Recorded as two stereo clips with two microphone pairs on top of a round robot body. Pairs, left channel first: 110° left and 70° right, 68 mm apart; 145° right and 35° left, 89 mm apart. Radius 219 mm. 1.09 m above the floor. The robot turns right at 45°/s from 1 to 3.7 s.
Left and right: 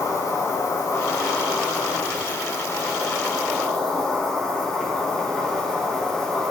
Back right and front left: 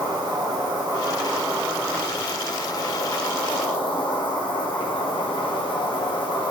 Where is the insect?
70° left, 2 m; by 6.5 s 170° right, 2 m.